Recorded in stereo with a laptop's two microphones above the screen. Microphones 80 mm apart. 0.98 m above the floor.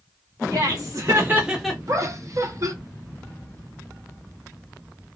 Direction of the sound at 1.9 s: 45° right (ahead or behind).